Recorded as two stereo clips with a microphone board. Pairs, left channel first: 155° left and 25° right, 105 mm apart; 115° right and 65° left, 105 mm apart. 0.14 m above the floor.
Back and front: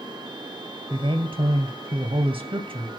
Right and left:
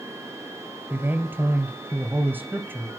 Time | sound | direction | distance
0.9 | a man speaking | straight ahead | 2 m